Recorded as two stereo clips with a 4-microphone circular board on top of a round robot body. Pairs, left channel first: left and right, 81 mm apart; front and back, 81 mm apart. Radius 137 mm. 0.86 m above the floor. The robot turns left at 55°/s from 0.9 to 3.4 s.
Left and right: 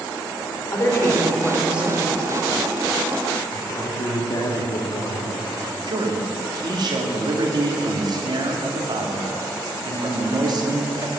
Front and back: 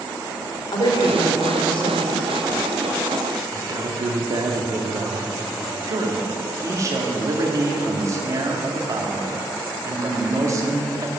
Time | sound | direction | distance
0.7 | a woman speaking | 35° left | 3.5 m
3.5 | a man speaking | 140° left | 1.8 m
5.9 | a man speaking | 125° right | 2.0 m